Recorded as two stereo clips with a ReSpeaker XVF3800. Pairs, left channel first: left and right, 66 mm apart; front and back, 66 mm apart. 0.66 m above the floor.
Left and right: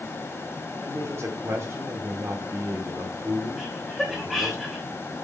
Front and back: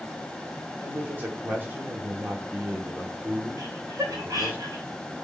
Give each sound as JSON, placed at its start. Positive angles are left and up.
{"t": 0.8, "sound": "a man speaking", "azimuth_deg": -125, "distance_m": 2.0}
{"t": 3.6, "sound": "laughter", "azimuth_deg": 180, "distance_m": 2.5}